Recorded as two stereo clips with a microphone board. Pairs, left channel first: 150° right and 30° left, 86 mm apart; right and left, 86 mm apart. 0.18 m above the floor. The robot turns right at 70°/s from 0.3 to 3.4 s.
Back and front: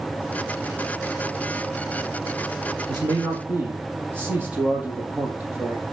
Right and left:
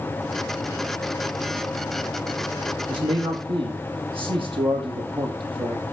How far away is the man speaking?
About 5 m.